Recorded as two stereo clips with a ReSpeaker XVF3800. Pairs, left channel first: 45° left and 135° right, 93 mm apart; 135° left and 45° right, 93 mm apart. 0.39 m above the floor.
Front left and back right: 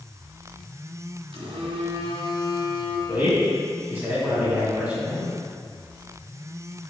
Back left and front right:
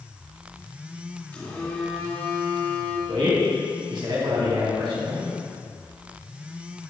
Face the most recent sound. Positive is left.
turn(degrees=-65)